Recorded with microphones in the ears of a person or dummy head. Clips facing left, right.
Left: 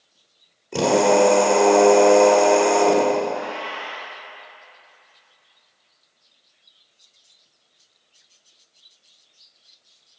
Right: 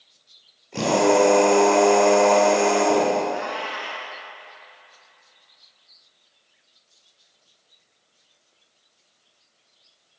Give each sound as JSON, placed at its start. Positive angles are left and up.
{"t": 0.7, "sound": "a drill", "side_deg": 75, "distance_m": 3.5}
{"t": 3.3, "sound": "a cat meowing", "side_deg": -50, "distance_m": 1.7}